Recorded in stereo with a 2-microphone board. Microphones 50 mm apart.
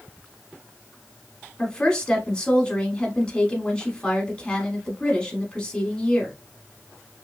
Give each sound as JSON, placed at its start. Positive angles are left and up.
{"t": 1.6, "sound": "a woman speaking", "side_deg": 20, "distance_m": 1.0}